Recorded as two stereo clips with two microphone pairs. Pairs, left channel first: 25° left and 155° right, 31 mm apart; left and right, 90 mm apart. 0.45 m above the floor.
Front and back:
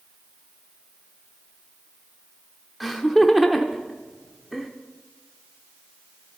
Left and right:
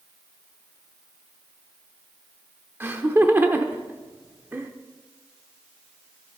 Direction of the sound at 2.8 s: 70° right.